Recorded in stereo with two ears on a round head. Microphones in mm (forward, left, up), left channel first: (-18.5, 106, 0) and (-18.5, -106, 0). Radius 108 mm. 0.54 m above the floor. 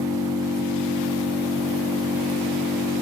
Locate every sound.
0.0 s an engine running: 15° right (ahead or behind), 1.5 m